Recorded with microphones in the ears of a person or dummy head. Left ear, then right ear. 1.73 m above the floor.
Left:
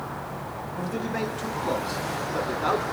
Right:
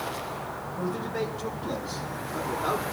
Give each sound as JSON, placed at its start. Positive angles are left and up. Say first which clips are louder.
{"t": 0.8, "sound": "a man speaking", "louder": "left 1 dB", "side_deg": 30, "distance_m": 2.5}